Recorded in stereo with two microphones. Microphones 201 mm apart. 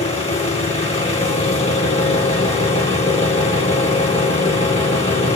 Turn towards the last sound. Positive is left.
turn(degrees=30)  # may be behind; listen again after turning